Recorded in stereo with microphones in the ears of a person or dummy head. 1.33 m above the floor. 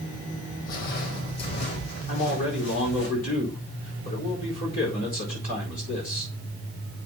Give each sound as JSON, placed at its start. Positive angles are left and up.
{"t": 0.7, "sound": "footsteps", "side_deg": 50, "distance_m": 2.5}
{"t": 2.1, "sound": "a man speaking", "side_deg": 45, "distance_m": 4.5}